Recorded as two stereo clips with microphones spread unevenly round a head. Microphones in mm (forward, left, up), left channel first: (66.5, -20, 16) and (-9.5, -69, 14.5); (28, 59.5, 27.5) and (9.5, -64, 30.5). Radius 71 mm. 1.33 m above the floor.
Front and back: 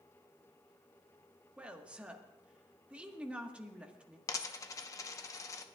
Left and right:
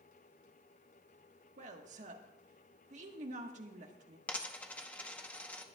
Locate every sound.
1.6 s a woman speaking: 70° right, 1.4 m
4.3 s a dropped coin: 5° left, 0.8 m